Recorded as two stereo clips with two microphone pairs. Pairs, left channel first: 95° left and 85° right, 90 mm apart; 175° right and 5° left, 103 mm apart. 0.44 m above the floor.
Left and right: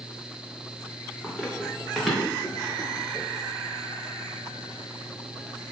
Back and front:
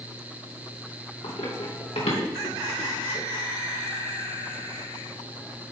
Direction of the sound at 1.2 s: 175° right.